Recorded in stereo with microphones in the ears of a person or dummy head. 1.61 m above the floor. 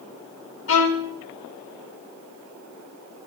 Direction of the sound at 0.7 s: 70° left (ahead or behind).